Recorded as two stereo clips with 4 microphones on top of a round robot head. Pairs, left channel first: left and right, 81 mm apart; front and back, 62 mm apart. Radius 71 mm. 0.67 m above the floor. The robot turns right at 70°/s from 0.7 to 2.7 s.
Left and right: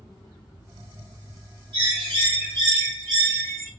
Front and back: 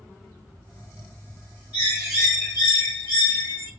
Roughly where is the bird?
Right.